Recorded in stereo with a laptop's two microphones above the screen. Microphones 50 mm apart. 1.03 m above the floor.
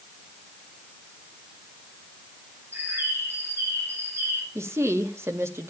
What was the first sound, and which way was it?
A bird, 50° right (ahead or behind).